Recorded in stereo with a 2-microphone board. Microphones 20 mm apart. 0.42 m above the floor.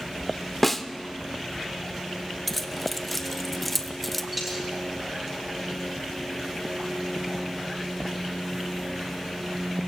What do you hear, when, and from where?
0.6 s a snare drum: 10° left (ahead or behind), 0.7 m
2.5 s keys jangling: 10° left (ahead or behind), 0.8 m
4.3 s a dropped coin: 5° right (ahead or behind), 7.5 m